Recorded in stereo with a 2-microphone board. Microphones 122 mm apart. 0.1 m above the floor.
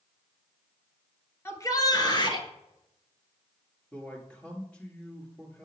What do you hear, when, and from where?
1.4 s a shout: 20° left (ahead or behind), 1.2 m; by 2.5 s 40° left (ahead or behind), 1.6 m
3.9 s a man speaking: 10° left (ahead or behind), 1.8 m